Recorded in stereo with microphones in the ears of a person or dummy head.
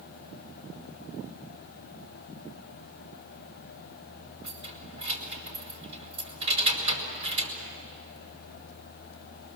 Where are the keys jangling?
45° right (ahead or behind), 5 m.